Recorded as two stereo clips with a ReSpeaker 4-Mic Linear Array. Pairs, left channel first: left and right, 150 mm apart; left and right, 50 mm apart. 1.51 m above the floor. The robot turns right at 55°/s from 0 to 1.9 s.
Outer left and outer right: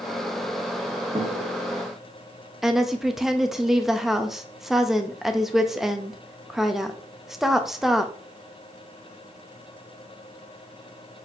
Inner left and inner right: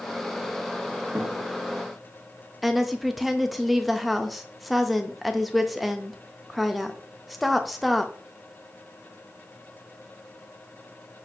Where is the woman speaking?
Centre (ahead or behind), 0.5 m.